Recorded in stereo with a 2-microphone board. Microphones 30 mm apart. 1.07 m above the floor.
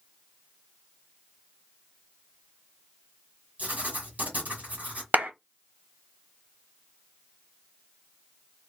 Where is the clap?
70° right (ahead or behind), 0.7 m.